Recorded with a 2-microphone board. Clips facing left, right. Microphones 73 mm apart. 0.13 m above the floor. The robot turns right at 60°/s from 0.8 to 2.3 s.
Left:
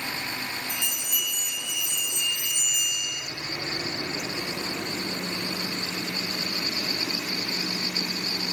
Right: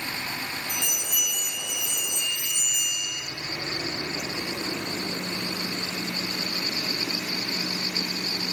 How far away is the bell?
About 1.8 m.